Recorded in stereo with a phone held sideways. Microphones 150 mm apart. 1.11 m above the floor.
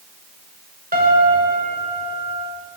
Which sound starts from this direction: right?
A piano, at 0.9 s.